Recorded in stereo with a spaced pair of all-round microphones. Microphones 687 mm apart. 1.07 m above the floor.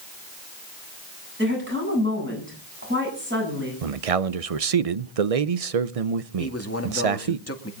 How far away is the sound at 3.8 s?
About 0.8 m.